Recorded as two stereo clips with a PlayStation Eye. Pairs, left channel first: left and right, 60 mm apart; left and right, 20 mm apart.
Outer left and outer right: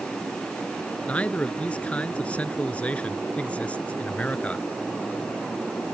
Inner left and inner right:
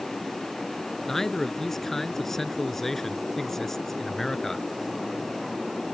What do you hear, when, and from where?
1.1 s a man speaking: 20° left (ahead or behind)